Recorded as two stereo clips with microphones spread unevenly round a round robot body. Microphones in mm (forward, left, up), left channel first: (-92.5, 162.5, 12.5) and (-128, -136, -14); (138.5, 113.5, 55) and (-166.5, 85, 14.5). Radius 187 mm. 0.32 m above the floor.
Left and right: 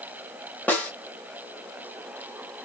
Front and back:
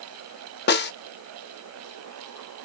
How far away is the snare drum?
About 0.5 m.